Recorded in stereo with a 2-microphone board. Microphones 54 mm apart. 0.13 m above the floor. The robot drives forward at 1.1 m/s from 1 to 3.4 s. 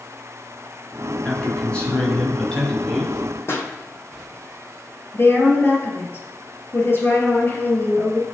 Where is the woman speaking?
40° left (ahead or behind), 2 m.